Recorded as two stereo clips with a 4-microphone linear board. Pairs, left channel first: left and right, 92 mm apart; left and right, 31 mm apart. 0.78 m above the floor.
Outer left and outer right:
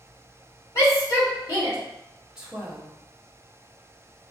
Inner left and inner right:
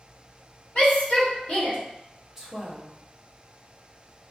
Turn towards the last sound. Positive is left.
turn(degrees=-10)  # may be behind; listen again after turning